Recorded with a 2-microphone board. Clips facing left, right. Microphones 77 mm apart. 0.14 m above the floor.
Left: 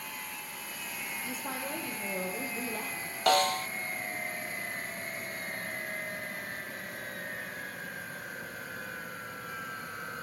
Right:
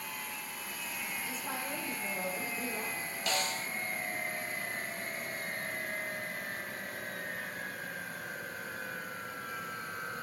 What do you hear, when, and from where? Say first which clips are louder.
1.2 s a woman speaking: left 3 dB; 50° left (ahead or behind), 4.5 m; by 3.1 s 70° left (ahead or behind), 4.5 m
3.3 s a snare drum: left 10 dB; 60° left (ahead or behind), 0.6 m